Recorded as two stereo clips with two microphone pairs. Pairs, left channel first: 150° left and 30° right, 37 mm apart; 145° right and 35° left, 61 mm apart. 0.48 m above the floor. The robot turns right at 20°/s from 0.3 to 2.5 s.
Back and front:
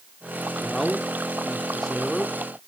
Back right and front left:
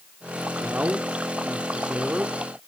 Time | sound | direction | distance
0.6 | a man speaking | 60° left | 0.9 m